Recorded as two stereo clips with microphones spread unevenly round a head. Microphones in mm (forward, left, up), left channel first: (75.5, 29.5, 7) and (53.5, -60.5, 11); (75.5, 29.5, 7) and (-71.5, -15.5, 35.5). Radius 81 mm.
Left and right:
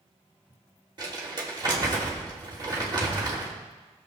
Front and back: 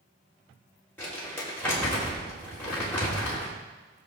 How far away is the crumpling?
About 3.5 m.